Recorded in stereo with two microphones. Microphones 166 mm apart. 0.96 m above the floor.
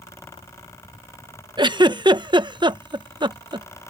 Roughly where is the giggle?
Right.